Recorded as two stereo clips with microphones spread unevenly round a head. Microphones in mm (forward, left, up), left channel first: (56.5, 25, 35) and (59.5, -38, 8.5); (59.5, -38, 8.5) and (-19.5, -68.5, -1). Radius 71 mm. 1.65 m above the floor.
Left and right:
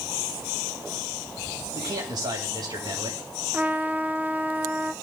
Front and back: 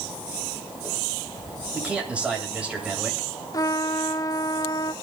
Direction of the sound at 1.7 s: 80° right.